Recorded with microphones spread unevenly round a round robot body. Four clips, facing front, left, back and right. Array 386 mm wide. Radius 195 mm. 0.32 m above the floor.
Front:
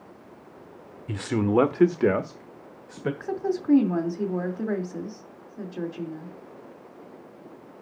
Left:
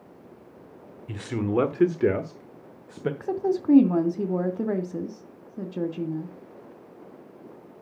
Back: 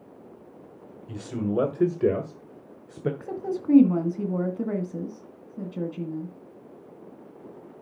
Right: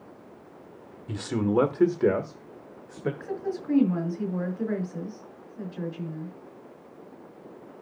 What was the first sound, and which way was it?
A man speaking, 15° right.